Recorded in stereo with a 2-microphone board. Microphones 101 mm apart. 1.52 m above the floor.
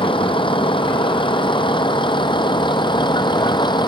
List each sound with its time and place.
0.0 s a vehicle: 60° left (ahead or behind); by 3.9 s 50° left (ahead or behind)